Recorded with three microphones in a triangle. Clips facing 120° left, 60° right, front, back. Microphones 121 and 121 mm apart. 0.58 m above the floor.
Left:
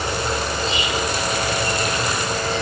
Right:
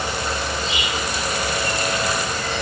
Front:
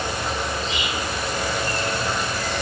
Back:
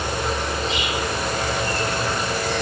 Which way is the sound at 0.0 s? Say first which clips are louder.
Left 2 dB, back 2 dB; 165° left.